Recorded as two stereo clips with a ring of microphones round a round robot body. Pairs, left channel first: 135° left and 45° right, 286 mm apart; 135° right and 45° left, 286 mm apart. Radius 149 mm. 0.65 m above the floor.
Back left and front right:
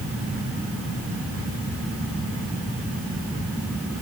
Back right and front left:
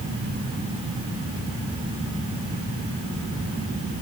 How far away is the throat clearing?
No throat clearing in this recording.